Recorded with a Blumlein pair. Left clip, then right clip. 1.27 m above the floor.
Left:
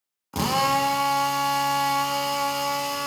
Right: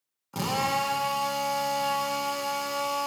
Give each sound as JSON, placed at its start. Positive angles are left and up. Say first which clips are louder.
{"t": 0.3, "sound": "a drill", "louder": "left 5 dB", "azimuth_deg": 15, "distance_m": 1.5}